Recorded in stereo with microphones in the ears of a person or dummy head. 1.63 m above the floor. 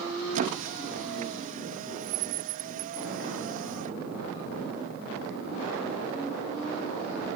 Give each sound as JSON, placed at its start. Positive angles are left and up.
{"t": 0.3, "sound": "a squeak", "side_deg": -45}